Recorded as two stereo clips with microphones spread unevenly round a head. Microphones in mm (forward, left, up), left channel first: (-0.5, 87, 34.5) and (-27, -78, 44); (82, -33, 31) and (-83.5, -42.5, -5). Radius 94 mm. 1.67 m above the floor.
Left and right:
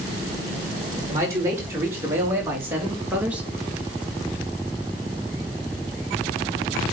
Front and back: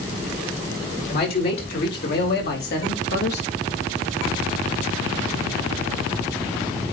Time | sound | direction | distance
1.1 | a man speaking | 25° right | 4 m